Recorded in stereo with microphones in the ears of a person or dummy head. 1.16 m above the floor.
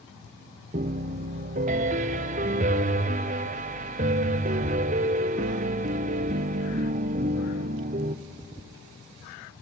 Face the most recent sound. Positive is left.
turn(degrees=-40)  # may be behind; listen again after turning